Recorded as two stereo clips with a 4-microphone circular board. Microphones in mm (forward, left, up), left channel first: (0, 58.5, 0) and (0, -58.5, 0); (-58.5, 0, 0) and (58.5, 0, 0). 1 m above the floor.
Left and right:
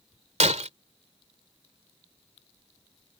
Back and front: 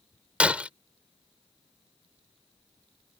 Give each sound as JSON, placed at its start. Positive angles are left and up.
{"t": 0.4, "sound": "breaking glass", "azimuth_deg": -80}